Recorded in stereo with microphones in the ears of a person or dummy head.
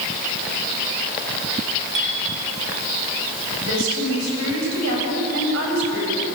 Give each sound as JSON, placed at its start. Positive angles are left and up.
{"t": 1.9, "sound": "a clink", "side_deg": -60, "distance_m": 5.0}
{"t": 3.6, "sound": "a woman speaking", "side_deg": -80, "distance_m": 8.0}